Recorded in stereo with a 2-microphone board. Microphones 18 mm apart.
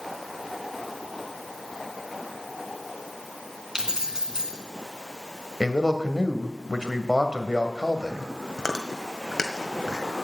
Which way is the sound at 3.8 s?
30° right (ahead or behind).